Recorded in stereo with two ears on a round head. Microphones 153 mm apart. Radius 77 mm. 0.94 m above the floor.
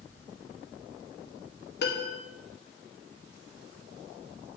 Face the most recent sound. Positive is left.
turn(degrees=65)  # may be behind; listen again after turning